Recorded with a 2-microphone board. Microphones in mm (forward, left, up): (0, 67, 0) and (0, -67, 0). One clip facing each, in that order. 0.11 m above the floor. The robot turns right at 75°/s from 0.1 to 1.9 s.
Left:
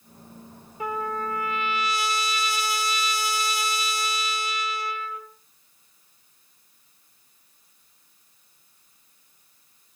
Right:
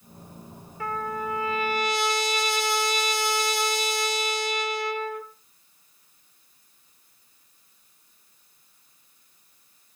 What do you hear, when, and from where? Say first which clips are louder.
0.8 s a trumpet: left 1 dB; 160° left, 0.7 m; by 5.2 s 120° right, 0.7 m